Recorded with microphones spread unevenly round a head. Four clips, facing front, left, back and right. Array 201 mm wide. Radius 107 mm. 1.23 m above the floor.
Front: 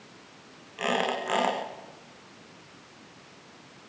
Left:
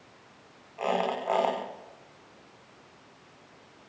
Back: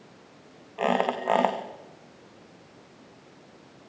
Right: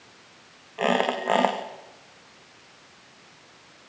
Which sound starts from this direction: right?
A squeak, at 0.8 s.